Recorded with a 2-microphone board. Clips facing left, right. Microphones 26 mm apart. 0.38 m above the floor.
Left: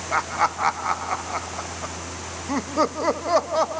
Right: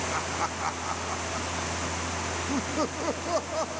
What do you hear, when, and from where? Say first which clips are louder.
0.1 s laughter: left 7 dB; 35° left (ahead or behind)